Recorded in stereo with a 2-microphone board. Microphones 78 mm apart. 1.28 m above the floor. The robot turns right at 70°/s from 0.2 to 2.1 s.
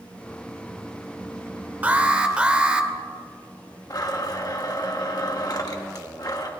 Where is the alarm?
20° right (ahead or behind), 1.1 m; by 2.9 s 15° right (ahead or behind), 1.1 m.